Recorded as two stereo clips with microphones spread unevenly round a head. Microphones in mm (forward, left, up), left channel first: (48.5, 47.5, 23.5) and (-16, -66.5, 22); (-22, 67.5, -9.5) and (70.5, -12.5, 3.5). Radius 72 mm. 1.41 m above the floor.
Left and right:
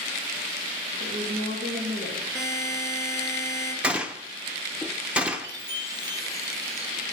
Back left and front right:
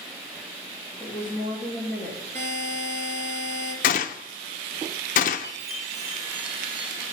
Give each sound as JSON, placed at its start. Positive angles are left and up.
{"t": 1.0, "sound": "a woman speaking", "azimuth_deg": -120, "distance_m": 3.0}
{"t": 2.4, "sound": "a buzzer", "azimuth_deg": -55, "distance_m": 3.5}
{"t": 3.8, "sound": "a gunshot", "azimuth_deg": 160, "distance_m": 0.6}
{"t": 5.4, "sound": "a chime", "azimuth_deg": -60, "distance_m": 1.9}